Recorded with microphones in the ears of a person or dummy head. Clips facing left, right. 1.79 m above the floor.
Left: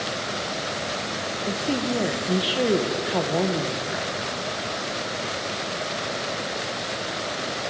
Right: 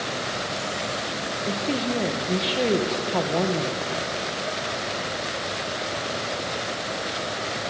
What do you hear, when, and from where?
1.5 s a woman speaking: centre (ahead or behind), 1.7 m